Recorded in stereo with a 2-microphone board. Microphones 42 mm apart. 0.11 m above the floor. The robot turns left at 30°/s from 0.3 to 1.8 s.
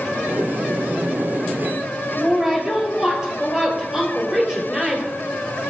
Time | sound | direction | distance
2.2 | a woman speaking | 15° right (ahead or behind) | 1.9 m